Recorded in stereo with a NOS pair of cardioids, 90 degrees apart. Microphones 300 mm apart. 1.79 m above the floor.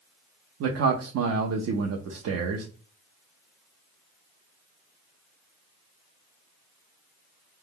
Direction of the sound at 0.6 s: 55° right.